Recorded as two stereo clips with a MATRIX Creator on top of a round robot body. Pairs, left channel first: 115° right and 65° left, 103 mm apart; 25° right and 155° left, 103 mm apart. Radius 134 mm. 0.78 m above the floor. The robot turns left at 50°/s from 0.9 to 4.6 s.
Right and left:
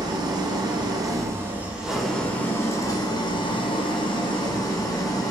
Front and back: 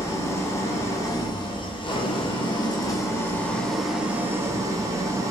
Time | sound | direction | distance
0.0 | an engine running | 30° left | 1.1 m